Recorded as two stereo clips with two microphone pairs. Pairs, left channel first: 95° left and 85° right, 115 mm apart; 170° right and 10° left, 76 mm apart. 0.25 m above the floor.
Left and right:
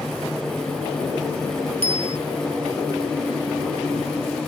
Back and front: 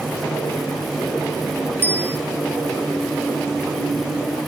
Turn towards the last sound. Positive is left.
turn(degrees=-50)